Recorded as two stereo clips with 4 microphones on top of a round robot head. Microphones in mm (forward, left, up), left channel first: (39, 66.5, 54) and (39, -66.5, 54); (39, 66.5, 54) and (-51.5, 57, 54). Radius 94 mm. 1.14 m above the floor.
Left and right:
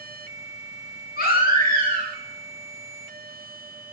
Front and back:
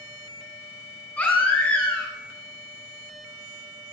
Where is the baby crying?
80° left, 5 m.